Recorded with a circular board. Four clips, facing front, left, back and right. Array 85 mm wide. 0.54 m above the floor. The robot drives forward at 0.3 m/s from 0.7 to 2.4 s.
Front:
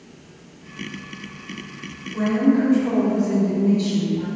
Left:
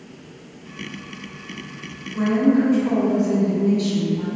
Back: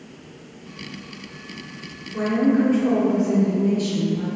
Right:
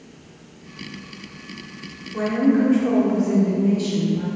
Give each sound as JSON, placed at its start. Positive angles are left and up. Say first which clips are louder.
{"t": 2.1, "sound": "a woman speaking", "louder": "left 1 dB, front 1 dB", "azimuth_deg": -125, "distance_m": 1.2}